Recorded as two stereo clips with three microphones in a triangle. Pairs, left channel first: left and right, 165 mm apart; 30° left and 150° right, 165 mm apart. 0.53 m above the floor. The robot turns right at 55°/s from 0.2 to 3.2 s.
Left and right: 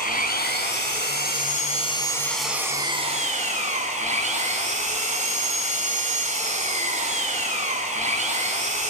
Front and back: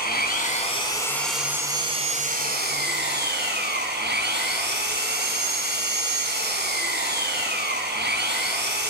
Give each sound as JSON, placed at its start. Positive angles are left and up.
{"t": 0.0, "sound": "an engine running", "azimuth_deg": 60, "distance_m": 2.5}